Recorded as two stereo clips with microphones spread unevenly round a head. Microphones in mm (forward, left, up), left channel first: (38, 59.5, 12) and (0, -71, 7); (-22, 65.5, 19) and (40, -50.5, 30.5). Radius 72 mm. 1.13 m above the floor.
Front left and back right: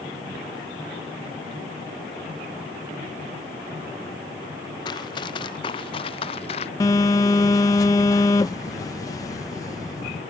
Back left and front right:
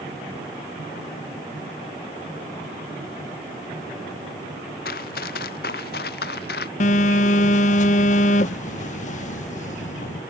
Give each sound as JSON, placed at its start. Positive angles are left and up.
{"t": 4.8, "sound": "running footsteps", "azimuth_deg": 135}
{"t": 6.8, "sound": "a phone buzzing", "azimuth_deg": 140}